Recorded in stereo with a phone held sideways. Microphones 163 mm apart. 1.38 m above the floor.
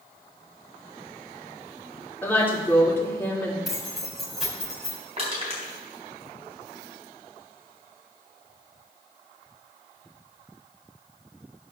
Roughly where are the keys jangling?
Centre.